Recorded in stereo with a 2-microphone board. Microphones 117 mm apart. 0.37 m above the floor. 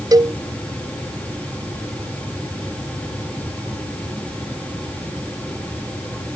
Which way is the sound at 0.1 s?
35° right (ahead or behind).